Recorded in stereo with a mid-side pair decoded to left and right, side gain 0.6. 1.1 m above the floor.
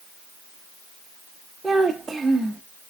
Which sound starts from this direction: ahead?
A child speaking, at 1.6 s.